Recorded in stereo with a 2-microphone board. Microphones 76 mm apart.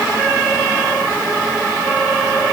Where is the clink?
I don't hear a clink.